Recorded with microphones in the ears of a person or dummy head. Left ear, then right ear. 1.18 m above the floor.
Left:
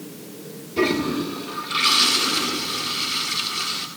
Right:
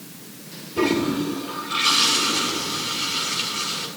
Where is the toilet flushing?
20° left (ahead or behind), 1.6 m.